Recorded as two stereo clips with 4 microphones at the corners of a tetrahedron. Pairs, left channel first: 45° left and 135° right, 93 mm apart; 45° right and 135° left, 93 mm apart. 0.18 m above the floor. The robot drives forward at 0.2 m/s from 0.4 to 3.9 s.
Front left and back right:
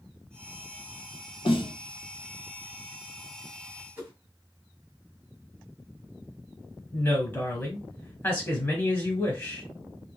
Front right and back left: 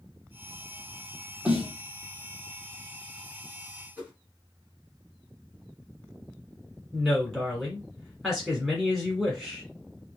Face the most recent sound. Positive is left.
turn(degrees=55)